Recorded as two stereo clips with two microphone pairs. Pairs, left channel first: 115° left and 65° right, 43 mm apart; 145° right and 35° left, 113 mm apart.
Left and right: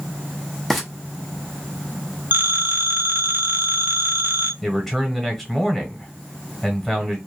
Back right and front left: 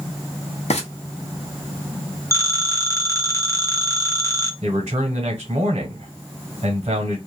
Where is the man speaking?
30° left, 1.3 m.